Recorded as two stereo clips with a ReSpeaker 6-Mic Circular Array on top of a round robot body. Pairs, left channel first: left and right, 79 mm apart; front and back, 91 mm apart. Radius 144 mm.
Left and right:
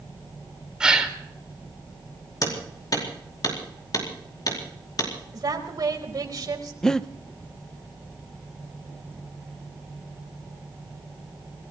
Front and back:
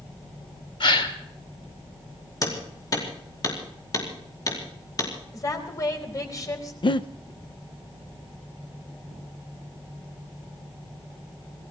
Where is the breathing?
10° left, 0.9 m.